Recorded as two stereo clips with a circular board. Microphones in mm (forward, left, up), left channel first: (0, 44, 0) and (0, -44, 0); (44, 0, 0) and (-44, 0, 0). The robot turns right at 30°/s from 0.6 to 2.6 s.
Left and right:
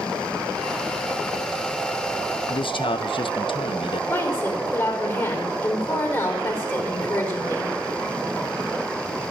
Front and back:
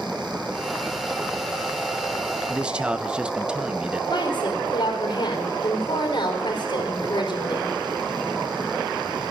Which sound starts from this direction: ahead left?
A woman speaking, at 4.1 s.